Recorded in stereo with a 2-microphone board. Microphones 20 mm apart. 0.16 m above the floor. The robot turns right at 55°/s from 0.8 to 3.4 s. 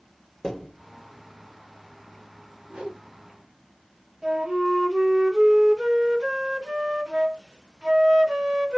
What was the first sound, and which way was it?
A thud, 35° left (ahead or behind).